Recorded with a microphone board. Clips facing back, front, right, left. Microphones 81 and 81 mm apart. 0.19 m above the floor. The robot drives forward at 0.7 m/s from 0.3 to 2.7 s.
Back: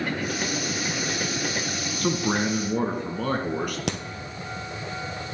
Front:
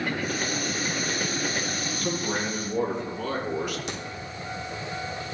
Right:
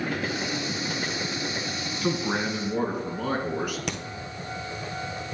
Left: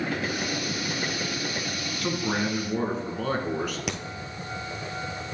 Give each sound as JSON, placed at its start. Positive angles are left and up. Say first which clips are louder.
{"t": 2.0, "sound": "a man speaking", "louder": "back 5 dB, right 1 dB", "azimuth_deg": -170, "distance_m": 1.3}
{"t": 3.9, "sound": "a crack", "louder": "back 5 dB, even", "azimuth_deg": 175, "distance_m": 1.0}